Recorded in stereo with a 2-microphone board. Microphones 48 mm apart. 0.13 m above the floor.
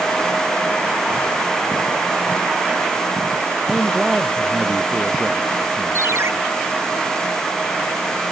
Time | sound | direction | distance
3.7 | a man speaking | centre (ahead or behind) | ?
6.0 | a ringtone | 65° right (ahead or behind) | ?